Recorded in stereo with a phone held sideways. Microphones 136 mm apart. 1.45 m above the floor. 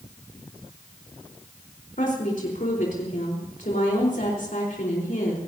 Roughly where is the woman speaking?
Left.